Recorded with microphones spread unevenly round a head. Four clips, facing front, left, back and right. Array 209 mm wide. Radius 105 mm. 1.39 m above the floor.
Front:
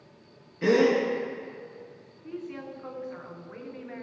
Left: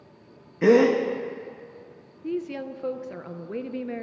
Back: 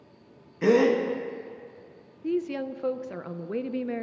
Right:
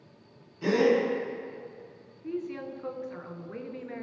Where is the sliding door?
I don't hear a sliding door.